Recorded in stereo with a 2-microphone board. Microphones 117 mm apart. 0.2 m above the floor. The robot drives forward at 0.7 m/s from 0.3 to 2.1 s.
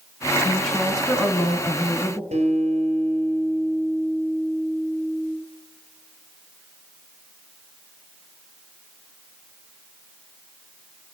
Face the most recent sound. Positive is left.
turn(degrees=-70)  # may be behind; listen again after turning